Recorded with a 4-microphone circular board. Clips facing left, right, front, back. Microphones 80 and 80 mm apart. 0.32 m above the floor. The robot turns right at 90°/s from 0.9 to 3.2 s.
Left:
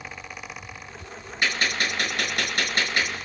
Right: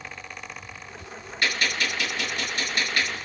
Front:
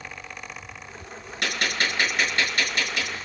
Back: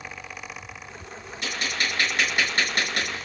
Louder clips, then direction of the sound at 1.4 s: Left 1 dB, front 3 dB; 20° left.